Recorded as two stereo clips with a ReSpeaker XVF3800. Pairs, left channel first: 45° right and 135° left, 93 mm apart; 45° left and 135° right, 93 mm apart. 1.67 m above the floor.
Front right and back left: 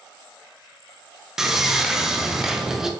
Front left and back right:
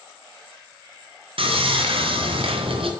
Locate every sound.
1.4 s sawing: 140° right, 0.7 m